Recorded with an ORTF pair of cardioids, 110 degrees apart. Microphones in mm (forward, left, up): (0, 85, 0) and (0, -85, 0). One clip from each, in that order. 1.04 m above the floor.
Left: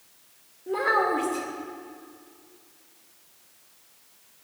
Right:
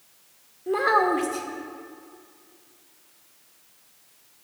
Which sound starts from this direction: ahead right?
A child speaking, at 0.7 s.